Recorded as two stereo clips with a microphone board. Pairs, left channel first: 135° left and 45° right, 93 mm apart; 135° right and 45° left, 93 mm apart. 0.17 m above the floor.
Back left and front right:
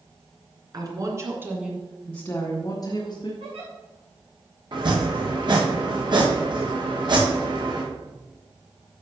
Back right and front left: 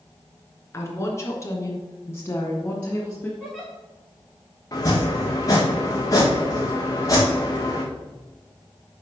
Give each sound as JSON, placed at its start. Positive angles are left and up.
{"t": 0.7, "sound": "a woman speaking", "azimuth_deg": -80, "distance_m": 2.5}
{"t": 3.4, "sound": "a giggle", "azimuth_deg": -55, "distance_m": 5.0}
{"t": 4.7, "sound": "chopping", "azimuth_deg": -85, "distance_m": 3.5}